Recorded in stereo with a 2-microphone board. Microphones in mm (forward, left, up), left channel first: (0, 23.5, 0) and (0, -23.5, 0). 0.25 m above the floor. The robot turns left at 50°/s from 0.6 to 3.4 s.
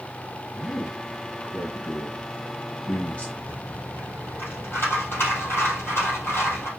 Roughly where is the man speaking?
Centre.